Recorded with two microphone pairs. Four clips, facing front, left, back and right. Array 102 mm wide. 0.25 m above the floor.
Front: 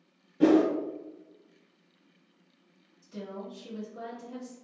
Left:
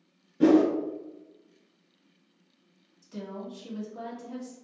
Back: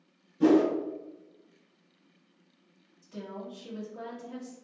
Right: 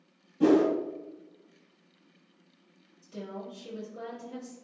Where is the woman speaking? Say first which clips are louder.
Left 1 dB, front 1 dB; 115° left, 1.5 m.